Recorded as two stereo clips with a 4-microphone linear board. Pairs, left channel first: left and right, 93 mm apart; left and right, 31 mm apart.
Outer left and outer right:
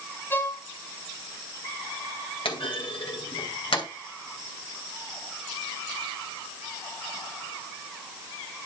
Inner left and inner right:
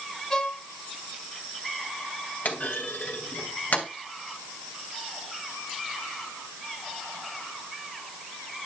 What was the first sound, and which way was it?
A violin, 20° left (ahead or behind).